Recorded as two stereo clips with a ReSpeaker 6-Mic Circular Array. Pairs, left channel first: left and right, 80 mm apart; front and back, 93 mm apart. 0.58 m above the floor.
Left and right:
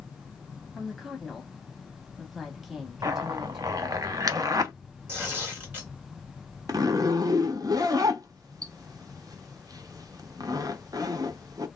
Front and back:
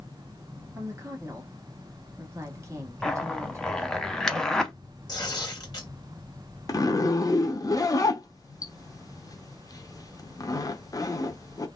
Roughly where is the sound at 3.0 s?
Right.